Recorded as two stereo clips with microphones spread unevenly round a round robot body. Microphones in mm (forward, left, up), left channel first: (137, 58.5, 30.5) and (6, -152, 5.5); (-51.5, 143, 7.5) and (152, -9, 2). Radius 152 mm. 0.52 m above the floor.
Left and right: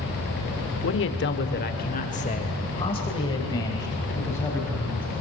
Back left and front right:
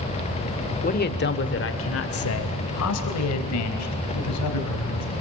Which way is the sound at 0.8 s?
95° left.